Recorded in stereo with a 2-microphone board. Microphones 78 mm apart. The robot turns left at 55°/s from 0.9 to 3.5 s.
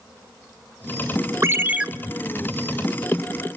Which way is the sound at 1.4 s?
35° right (ahead or behind).